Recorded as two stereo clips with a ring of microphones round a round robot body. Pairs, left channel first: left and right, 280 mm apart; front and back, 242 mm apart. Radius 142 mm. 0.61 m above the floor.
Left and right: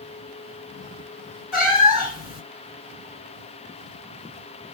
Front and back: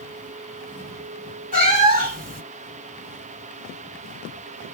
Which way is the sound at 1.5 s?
125° left.